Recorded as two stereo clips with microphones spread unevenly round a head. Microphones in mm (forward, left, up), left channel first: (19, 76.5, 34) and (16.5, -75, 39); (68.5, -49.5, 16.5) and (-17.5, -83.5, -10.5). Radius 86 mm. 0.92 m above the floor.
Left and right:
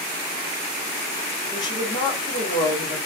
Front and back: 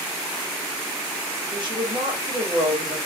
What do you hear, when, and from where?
1.5 s a woman speaking: 155° left, 2 m